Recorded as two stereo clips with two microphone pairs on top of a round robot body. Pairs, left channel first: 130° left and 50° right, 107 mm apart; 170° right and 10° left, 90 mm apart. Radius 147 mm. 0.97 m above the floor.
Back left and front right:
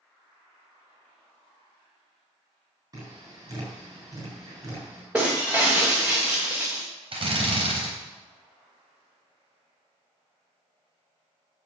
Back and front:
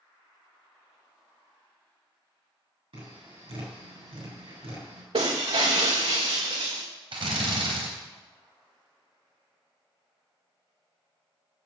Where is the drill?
15° right, 3.5 m.